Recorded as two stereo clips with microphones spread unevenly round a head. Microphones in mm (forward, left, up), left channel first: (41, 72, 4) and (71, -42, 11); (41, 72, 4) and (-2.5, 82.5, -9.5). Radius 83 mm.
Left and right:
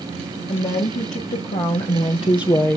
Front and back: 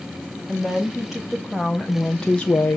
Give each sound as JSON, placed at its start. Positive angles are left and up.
{"t": 0.5, "sound": "a woman speaking", "azimuth_deg": 90, "distance_m": 3.0}